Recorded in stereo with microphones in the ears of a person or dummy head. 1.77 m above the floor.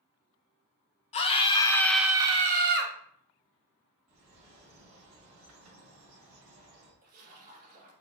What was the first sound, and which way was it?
A scream, 35° left (ahead or behind).